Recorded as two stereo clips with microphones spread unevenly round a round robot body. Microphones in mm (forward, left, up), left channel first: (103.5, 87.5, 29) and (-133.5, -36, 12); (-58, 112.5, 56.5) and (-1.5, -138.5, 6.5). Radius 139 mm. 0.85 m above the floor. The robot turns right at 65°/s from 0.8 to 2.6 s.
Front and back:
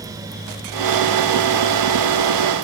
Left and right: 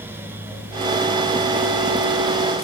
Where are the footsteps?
No footsteps in this recording.